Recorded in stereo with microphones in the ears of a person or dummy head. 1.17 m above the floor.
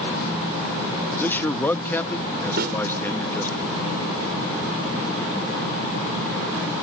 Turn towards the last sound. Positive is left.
turn(degrees=-55)  # may be behind; listen again after turning